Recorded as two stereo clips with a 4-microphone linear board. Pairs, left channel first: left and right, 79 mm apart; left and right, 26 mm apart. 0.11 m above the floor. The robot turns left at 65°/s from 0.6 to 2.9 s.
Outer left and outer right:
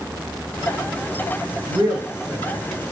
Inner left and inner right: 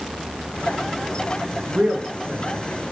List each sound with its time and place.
1.7 s a woman speaking: 70° right (ahead or behind), 5.5 m; by 2.6 s 10° right (ahead or behind), 5.5 m